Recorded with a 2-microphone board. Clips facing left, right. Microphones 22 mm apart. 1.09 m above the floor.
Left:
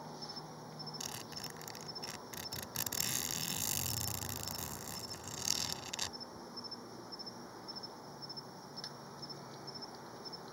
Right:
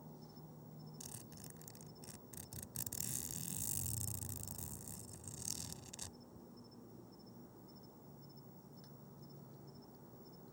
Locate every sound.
0.0 s an insect: 70° left (ahead or behind)
1.0 s a zipper: 55° left (ahead or behind)